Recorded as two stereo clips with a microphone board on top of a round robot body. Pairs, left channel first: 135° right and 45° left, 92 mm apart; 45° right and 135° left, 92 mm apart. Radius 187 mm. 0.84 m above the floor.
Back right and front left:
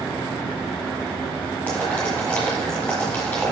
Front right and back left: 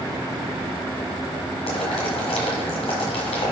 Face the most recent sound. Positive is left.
turn(degrees=-55)